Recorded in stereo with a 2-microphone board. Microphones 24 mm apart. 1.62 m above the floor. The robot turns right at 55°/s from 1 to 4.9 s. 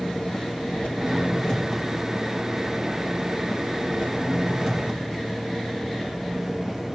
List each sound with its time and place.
0.0 s an engine running: 125° left, 2.5 m; by 7.0 s 20° right, 2.5 m